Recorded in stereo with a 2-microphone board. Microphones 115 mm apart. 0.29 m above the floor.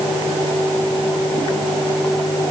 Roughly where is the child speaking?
No child speaking in this recording.